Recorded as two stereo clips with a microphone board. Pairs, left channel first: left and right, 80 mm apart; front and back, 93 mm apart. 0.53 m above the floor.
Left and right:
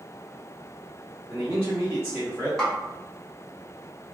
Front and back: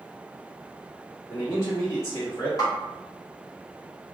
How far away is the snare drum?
About 1.1 m.